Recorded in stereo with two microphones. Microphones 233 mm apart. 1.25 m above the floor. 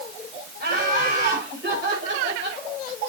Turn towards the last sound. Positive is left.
turn(degrees=-50)  # may be behind; listen again after turning